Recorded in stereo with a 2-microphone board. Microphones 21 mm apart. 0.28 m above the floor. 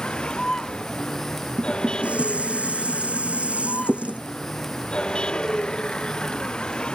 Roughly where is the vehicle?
Left.